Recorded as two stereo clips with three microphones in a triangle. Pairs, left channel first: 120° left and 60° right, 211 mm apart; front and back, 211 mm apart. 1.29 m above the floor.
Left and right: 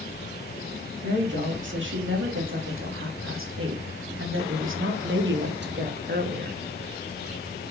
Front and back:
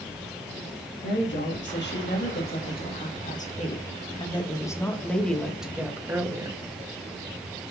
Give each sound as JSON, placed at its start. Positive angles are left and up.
{"t": 1.0, "sound": "a woman speaking", "azimuth_deg": -30, "distance_m": 2.5}